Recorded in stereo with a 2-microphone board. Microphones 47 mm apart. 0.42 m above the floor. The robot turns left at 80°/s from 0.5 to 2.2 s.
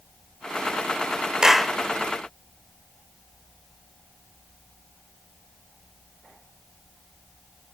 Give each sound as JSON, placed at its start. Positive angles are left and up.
{"t": 1.4, "sound": "a clap", "side_deg": -15, "distance_m": 1.0}